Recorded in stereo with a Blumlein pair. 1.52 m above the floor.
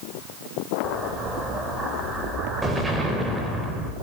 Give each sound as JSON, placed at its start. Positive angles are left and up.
{"t": 0.8, "sound": "an explosion", "azimuth_deg": -10, "distance_m": 4.0}